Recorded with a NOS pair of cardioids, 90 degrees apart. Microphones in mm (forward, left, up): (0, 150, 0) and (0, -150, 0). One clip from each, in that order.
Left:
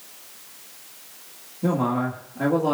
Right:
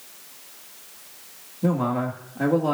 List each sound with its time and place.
1.6 s a man speaking: 10° right, 2 m